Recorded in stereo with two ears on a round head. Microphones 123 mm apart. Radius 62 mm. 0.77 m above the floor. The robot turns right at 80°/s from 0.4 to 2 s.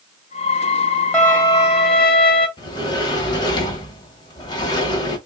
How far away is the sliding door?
About 1.1 m.